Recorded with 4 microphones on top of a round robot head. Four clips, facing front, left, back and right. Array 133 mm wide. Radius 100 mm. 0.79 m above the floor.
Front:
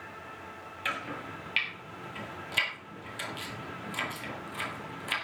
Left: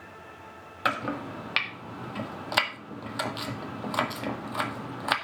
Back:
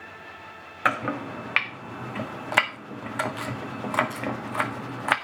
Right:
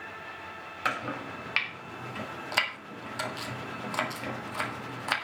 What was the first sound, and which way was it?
Chopping, 160° left.